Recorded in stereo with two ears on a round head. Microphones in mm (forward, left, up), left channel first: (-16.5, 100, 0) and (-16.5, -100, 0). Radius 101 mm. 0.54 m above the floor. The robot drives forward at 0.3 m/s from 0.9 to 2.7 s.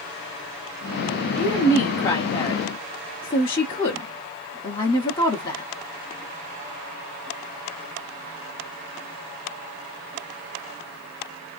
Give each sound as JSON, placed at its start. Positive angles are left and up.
{"t": 1.4, "sound": "a woman speaking", "side_deg": 15, "distance_m": 1.0}